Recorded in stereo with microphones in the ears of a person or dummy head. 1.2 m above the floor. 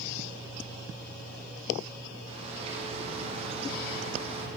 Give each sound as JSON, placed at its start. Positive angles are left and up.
{"t": 2.3, "sound": "a bird", "side_deg": -30, "distance_m": 0.9}